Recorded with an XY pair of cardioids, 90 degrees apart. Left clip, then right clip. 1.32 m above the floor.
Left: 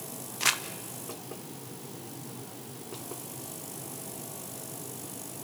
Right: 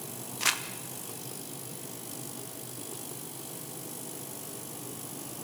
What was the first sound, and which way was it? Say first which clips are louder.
Crumpling: left 1 dB; 15° left.